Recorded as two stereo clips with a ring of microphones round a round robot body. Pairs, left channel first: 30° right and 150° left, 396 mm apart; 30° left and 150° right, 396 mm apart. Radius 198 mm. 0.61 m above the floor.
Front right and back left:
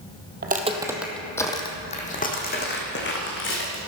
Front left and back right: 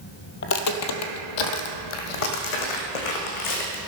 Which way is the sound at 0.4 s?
85° left.